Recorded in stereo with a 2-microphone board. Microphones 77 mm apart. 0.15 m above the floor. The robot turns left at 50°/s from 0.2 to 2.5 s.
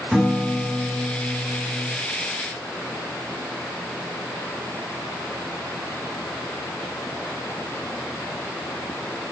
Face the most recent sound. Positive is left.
turn(degrees=75)